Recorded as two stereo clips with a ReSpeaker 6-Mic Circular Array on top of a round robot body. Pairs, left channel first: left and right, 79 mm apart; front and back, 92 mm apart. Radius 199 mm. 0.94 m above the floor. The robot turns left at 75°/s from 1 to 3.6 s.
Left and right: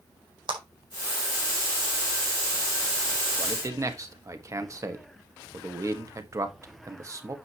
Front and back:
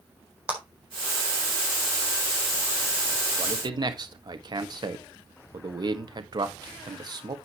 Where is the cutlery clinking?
No cutlery clinking in this recording.